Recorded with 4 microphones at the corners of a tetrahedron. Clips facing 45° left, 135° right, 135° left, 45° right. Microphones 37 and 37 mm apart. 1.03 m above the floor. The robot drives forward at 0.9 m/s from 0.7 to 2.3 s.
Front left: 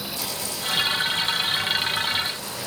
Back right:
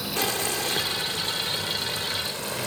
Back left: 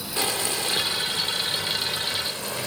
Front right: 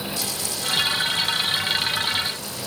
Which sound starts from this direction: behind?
Boiling, at 0.2 s.